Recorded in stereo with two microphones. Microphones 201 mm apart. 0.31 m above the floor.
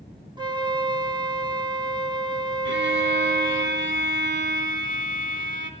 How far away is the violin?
About 3 m.